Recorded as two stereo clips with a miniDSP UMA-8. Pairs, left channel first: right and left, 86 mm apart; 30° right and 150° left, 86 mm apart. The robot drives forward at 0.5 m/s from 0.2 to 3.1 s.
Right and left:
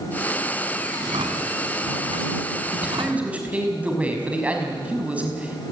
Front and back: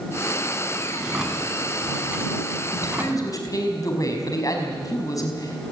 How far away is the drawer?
About 4.5 m.